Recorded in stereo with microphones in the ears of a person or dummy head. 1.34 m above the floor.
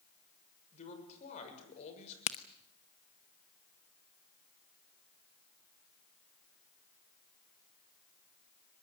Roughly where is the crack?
Left.